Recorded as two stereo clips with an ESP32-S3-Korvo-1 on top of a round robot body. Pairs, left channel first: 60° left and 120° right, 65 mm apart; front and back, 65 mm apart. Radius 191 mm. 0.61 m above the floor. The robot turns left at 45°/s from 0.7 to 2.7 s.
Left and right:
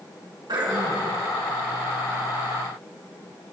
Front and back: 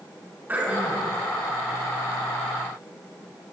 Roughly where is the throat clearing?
Behind right.